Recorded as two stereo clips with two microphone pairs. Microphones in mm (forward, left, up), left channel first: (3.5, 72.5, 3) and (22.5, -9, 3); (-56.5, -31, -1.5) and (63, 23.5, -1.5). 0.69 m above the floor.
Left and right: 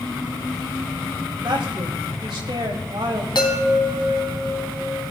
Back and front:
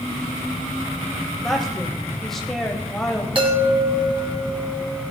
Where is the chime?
75° left, 3 m.